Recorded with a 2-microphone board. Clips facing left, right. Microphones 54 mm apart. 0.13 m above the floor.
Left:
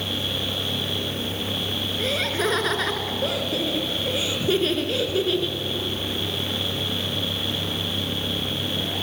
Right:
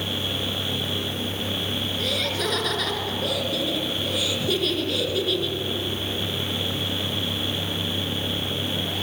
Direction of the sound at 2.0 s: 25° left (ahead or behind).